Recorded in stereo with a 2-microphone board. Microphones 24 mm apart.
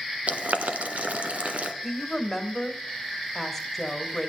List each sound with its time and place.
0.3 s boiling: 65° right (ahead or behind), 1.3 m
1.8 s a woman speaking: 5° left (ahead or behind), 1.8 m